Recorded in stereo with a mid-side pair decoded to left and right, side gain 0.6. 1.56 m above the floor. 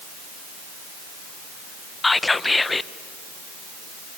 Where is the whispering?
15° left, 0.6 m.